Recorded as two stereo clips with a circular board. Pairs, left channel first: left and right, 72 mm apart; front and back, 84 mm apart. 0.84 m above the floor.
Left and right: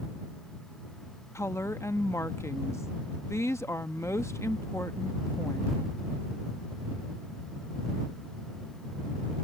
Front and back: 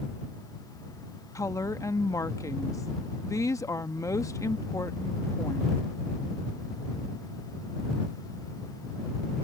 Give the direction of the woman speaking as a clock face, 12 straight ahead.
11 o'clock.